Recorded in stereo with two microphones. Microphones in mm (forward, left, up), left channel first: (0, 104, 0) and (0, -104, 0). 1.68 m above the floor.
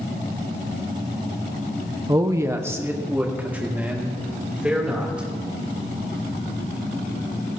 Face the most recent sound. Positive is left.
turn(degrees=-5)  # may be behind; listen again after turning